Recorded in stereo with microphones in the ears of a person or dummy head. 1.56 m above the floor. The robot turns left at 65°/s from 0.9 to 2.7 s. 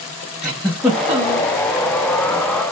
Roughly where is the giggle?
Ahead.